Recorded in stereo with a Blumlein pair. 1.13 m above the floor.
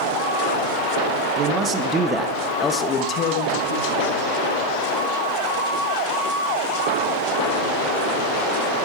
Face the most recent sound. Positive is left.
turn(degrees=55)